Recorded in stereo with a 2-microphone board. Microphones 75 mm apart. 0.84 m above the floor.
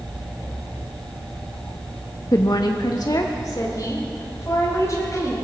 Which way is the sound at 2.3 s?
45° left (ahead or behind).